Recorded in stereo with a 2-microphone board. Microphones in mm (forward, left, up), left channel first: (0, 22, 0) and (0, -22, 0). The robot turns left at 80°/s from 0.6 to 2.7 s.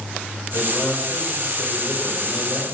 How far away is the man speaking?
About 7.5 m.